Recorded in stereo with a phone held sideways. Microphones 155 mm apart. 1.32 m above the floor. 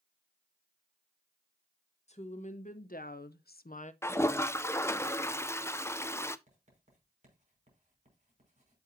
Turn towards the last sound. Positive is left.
turn(degrees=-50)  # may be behind; listen again after turning